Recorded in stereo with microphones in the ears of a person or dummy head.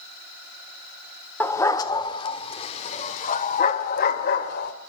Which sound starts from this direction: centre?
A dog barking, at 1.4 s.